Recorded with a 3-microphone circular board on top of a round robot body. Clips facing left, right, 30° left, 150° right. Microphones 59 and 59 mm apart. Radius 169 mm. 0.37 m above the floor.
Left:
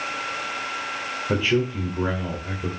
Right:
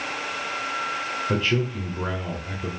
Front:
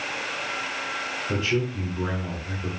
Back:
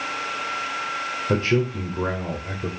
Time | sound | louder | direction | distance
1.3 | a man speaking | left 3 dB, back 5 dB | 170° left | 2 m